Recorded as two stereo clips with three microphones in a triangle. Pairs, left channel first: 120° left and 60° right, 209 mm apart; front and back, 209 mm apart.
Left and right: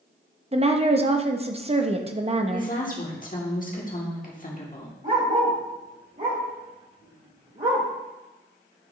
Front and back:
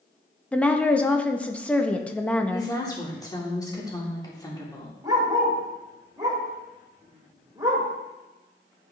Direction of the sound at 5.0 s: 105° right.